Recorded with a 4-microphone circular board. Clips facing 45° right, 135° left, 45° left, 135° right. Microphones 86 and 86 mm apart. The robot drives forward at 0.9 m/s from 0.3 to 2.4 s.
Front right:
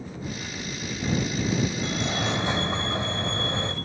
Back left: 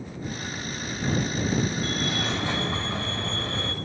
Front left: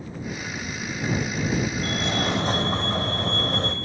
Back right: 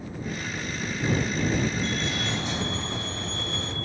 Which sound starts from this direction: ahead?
A fire alarm, at 1.8 s.